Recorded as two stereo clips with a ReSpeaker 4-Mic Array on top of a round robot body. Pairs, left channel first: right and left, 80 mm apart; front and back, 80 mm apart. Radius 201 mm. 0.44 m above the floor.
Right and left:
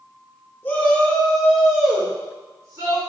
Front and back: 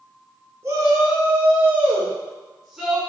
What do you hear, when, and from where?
0.6 s a shout: 145° right, 1.6 m; by 3.0 s 90° left, 1.5 m